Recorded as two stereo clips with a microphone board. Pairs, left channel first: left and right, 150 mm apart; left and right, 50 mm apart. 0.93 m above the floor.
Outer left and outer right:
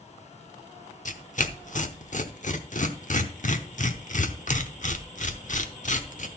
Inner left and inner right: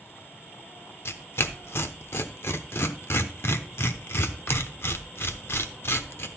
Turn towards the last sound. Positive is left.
turn(degrees=60)  # may be behind; listen again after turning